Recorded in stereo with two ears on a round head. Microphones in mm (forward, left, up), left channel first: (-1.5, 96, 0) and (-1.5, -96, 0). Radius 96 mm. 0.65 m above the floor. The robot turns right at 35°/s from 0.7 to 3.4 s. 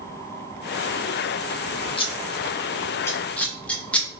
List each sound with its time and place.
2.0 s scissors: 25° left (ahead or behind), 0.6 m; by 4.1 s 5° left (ahead or behind), 0.6 m